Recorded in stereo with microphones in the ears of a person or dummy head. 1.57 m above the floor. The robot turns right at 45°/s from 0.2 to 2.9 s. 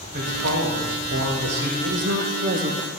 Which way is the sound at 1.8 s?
85° right.